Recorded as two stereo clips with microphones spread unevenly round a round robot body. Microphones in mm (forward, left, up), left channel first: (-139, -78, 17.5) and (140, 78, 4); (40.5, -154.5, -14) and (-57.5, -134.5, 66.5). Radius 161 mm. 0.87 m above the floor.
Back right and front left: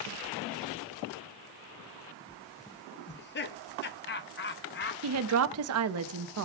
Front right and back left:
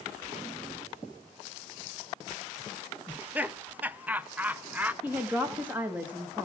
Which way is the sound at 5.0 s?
60° left.